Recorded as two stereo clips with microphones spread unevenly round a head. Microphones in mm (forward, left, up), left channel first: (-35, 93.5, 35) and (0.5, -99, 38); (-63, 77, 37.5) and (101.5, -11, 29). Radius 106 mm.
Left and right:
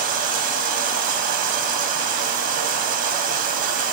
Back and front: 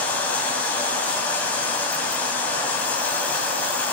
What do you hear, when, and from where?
0.0 s running water: 125° right, 2.5 m